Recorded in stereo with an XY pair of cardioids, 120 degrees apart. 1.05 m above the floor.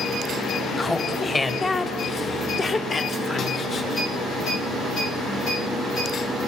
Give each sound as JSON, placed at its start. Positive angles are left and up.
{"t": 0.8, "sound": "laughter", "azimuth_deg": 15, "distance_m": 3.0}